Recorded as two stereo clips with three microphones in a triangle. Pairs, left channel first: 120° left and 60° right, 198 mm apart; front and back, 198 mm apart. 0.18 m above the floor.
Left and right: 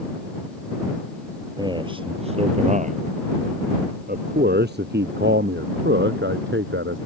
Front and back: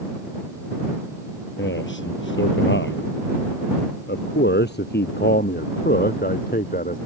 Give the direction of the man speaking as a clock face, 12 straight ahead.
12 o'clock.